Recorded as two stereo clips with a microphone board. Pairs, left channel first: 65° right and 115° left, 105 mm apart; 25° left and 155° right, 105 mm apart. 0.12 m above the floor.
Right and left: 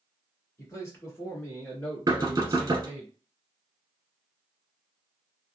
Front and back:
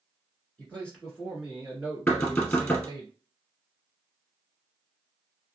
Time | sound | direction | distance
0.6 | a man speaking | 40° right | 1.6 m
2.1 | knocking | 85° left | 1.3 m